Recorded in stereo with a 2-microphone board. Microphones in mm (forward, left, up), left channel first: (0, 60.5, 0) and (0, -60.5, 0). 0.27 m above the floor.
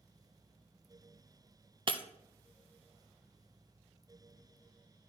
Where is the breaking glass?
45° right (ahead or behind), 0.5 m.